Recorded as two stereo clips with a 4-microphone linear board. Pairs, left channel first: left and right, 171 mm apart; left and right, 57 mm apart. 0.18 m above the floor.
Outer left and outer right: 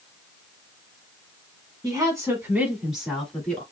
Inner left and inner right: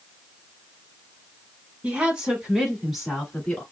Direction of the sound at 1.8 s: 25° right (ahead or behind).